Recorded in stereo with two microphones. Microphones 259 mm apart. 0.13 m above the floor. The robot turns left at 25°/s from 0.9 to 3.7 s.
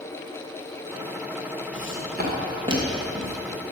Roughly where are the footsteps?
Right.